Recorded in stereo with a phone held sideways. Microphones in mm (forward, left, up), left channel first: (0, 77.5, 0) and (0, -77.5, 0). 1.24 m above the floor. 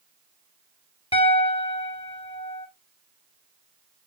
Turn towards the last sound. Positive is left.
turn(degrees=40)  # may be behind; listen again after turning